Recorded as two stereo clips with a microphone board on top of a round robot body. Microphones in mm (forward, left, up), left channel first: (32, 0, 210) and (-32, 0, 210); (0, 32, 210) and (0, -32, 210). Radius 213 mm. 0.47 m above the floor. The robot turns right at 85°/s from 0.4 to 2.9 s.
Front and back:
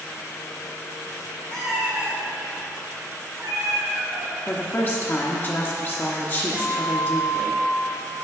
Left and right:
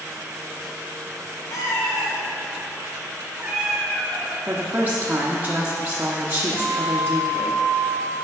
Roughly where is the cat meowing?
Left.